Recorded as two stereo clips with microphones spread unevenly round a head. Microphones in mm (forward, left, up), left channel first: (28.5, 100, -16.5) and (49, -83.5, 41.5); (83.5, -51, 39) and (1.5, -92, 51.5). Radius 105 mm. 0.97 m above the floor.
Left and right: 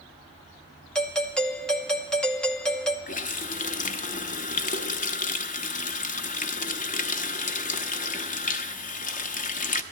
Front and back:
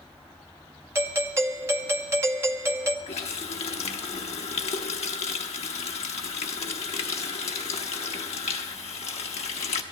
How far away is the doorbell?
About 0.7 m.